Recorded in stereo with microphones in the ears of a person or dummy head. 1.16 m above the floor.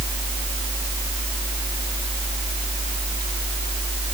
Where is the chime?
I don't hear a chime.